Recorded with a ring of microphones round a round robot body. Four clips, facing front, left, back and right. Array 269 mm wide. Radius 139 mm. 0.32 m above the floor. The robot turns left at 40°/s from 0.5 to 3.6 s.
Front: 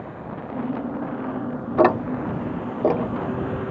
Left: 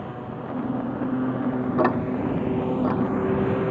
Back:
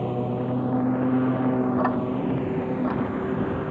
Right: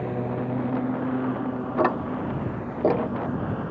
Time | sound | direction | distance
0.0 | a lawn mower | 150° right | ?
1.8 | ticking | 5° left | ?